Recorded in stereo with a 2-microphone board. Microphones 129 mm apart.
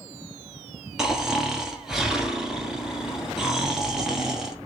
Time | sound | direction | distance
1.0 | snoring | 5° right (ahead or behind) | 1.3 m